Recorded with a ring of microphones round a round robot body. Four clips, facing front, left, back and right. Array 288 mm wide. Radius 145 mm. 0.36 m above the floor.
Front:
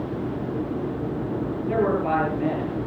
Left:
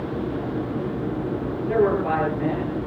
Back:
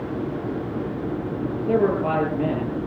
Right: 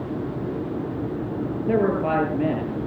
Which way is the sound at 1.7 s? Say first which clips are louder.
Left 1 dB, back 2 dB; 125° right.